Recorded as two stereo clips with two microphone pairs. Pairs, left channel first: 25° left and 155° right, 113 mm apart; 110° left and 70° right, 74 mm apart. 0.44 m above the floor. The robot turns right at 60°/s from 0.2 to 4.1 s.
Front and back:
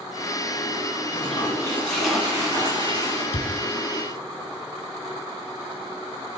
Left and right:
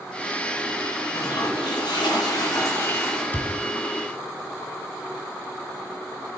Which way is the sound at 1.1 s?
60° left.